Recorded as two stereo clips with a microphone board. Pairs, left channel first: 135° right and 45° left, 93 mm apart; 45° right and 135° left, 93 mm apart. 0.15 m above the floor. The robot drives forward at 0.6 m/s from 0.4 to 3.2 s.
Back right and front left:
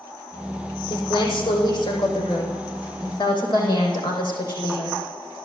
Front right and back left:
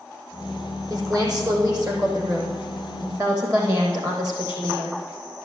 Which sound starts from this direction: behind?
A woman speaking, at 0.9 s.